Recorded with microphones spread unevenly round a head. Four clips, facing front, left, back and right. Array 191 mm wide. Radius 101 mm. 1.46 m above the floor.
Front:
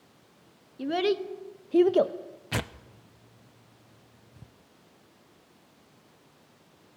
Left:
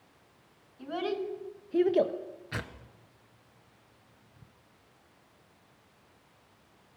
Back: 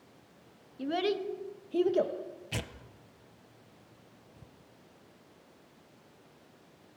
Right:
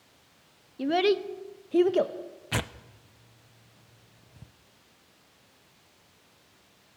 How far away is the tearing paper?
About 0.6 m.